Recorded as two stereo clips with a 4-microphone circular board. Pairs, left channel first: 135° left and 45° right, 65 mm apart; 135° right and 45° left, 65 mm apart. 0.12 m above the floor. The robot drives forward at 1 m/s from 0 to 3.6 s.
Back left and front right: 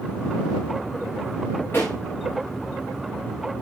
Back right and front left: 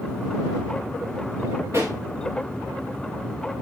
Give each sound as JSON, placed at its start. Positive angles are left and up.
{"t": 1.7, "sound": "a pop", "azimuth_deg": 80, "distance_m": 6.0}